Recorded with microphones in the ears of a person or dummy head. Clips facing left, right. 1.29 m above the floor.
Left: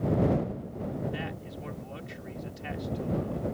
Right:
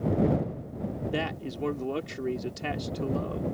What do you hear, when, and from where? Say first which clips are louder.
1.1 s a man speaking: right 5 dB; 65° right (ahead or behind)